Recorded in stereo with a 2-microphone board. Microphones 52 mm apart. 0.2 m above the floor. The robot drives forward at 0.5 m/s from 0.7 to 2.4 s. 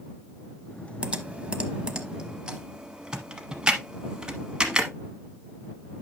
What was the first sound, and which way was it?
Typing on a keyboard, 25° right (ahead or behind).